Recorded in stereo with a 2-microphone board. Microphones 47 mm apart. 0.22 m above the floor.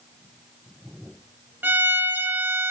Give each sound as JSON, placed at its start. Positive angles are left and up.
{"t": 1.6, "sound": "a violin", "side_deg": -45, "distance_m": 2.5}